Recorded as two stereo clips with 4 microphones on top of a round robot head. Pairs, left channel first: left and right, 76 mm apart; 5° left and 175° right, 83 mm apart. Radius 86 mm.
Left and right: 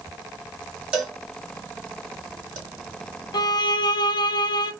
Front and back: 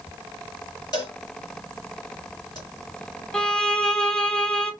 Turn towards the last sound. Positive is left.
turn(degrees=85)